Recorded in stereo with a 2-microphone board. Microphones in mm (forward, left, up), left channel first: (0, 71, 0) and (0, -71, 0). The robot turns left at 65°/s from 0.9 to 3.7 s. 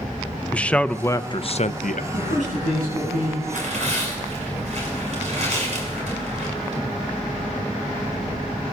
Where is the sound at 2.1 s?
40° right, 7.5 m; by 3.4 s 120° right, 7.5 m.